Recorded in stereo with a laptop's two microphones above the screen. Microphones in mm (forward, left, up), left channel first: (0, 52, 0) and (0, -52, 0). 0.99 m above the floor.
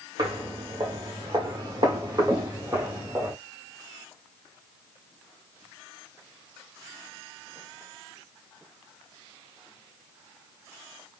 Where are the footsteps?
40° right (ahead or behind), 1.6 m; by 3.3 s 20° right (ahead or behind), 1.4 m.